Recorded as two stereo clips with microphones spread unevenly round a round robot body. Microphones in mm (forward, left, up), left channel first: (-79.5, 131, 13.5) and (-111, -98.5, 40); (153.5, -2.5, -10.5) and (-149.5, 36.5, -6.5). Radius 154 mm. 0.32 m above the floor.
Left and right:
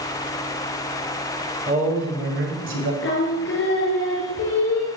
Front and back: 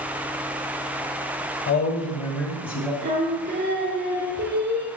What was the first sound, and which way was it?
A man speaking, 40° right.